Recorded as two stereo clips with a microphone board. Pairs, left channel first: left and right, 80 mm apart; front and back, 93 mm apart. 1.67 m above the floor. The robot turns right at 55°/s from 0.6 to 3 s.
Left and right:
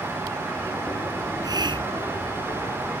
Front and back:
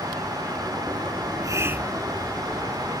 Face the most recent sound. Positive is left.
turn(degrees=-45)